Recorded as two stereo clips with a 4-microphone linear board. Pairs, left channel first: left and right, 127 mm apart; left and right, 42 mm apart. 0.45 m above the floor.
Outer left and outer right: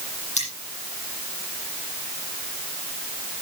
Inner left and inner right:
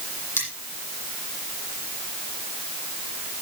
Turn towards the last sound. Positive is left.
turn(degrees=75)  # may be behind; listen again after turning